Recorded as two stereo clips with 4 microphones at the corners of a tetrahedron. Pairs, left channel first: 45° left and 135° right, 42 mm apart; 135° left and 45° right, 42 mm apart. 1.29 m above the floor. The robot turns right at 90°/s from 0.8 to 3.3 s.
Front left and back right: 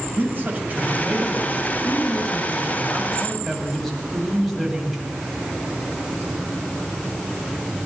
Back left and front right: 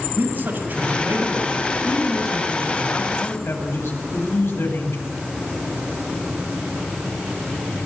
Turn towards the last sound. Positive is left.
turn(degrees=135)